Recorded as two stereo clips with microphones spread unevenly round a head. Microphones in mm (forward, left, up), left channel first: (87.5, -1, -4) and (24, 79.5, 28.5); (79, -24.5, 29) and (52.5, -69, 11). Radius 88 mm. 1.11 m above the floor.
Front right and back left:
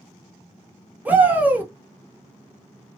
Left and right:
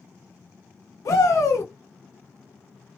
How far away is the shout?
About 1.1 m.